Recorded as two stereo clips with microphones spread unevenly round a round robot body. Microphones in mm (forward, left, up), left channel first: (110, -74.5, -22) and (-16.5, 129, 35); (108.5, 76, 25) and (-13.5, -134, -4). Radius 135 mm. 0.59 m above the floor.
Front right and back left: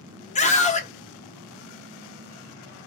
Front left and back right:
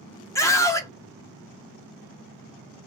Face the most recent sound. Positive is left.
turn(degrees=-20)